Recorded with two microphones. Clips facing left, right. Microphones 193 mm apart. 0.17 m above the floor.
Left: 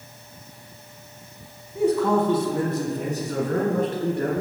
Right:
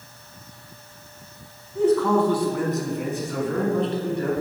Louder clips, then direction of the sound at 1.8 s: Right 1 dB; 10° left (ahead or behind).